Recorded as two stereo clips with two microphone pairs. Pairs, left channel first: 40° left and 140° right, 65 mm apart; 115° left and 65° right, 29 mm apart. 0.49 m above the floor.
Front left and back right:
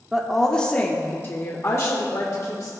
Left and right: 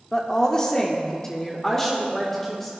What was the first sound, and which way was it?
A woman speaking, 140° left.